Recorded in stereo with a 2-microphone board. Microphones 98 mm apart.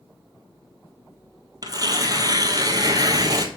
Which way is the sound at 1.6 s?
40° right (ahead or behind).